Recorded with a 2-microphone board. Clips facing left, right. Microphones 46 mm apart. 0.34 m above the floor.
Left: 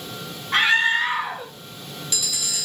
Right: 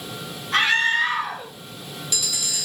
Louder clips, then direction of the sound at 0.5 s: Left 1 dB; 25° left (ahead or behind).